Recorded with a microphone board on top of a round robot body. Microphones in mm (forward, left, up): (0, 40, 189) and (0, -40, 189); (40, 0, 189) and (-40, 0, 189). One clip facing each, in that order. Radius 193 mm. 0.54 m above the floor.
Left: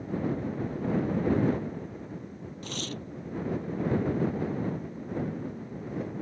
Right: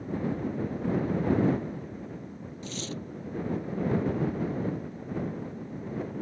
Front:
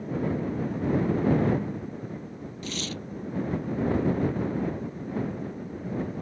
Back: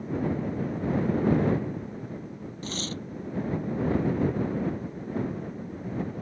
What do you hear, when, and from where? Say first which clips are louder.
2.6 s tearing paper: even, even; 125° left